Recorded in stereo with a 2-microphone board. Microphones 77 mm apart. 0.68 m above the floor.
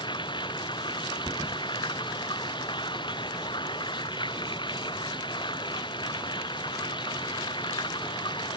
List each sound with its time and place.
0.0 s running water: 85° left
1.2 s a thud: 40° right (ahead or behind)